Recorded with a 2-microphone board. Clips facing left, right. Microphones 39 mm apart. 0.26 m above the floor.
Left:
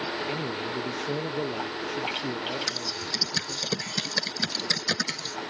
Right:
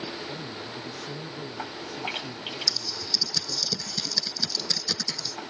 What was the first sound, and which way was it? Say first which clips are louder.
A man speaking: left 6 dB; 70° left (ahead or behind).